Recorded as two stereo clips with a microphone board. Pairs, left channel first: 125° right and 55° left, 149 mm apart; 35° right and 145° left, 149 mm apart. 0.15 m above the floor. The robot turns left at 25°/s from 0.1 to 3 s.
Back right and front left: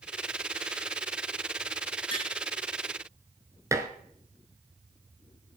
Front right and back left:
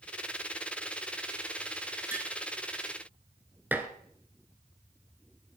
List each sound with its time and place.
2.1 s tapping: 150° right, 1.7 m; by 2.3 s 155° right, 1.7 m
3.7 s dishes clattering: 85° left, 0.7 m